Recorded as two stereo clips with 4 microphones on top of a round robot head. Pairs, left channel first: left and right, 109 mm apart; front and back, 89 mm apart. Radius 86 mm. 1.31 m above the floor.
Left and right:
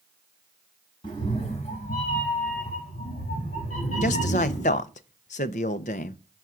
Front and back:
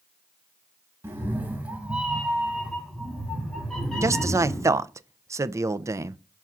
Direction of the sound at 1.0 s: 135° left.